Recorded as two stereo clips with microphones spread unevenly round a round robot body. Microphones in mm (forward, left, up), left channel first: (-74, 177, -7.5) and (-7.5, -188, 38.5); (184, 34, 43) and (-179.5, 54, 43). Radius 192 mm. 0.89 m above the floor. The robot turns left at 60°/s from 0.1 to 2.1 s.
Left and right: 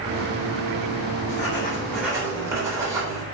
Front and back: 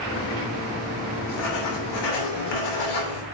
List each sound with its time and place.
1.3 s writing: 55° left, 3 m; by 3.2 s 5° left, 3 m